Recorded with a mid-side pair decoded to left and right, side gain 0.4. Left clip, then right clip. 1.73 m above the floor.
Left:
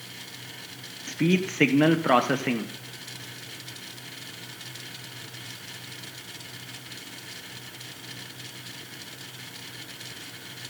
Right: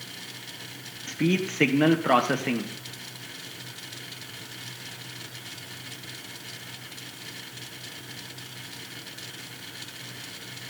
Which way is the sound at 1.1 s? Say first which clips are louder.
Left 1 dB; 15° left.